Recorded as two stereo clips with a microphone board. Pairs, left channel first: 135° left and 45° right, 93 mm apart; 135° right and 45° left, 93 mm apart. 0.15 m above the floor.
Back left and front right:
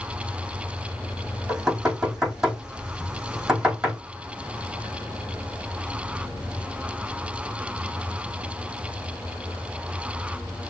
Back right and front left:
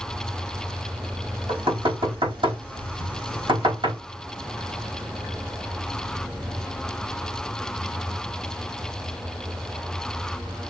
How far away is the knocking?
About 4 m.